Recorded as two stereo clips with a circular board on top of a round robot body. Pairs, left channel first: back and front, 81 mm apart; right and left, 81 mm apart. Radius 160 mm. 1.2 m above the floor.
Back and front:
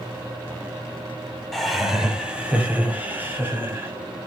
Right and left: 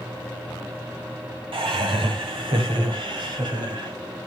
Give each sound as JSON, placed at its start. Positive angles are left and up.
{"t": 1.5, "sound": "laughter", "azimuth_deg": 95, "distance_m": 2.0}